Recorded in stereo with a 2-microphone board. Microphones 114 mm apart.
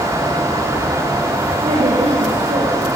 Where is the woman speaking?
75° right (ahead or behind), 6.5 m; by 3.0 s 70° right (ahead or behind), 6 m.